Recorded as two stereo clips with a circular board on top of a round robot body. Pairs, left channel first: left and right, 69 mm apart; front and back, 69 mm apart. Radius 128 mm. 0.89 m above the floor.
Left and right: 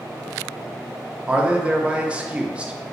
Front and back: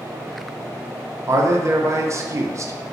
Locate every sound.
1.3 s a man speaking: 160° right, 0.5 m